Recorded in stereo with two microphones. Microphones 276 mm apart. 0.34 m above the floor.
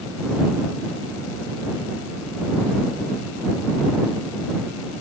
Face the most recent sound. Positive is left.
No sound to turn to.